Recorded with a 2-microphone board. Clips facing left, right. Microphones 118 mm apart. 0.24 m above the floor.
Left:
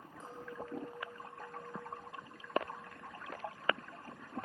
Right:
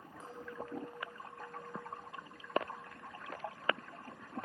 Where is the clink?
5° right (ahead or behind), 4.5 m.